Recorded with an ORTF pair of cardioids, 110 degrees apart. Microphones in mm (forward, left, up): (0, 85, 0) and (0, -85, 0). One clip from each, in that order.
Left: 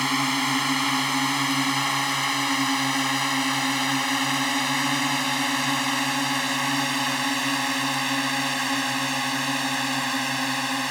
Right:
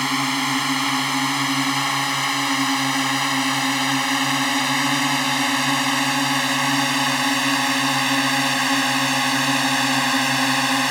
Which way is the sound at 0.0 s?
15° right.